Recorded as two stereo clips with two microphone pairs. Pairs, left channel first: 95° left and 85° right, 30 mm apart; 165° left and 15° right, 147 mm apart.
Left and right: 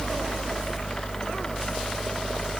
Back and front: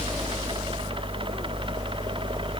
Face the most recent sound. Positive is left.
No sound to turn to.